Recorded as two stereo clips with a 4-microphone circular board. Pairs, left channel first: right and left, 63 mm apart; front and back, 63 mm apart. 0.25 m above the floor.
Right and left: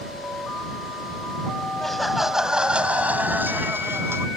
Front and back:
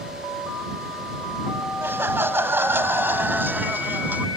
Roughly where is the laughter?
Behind.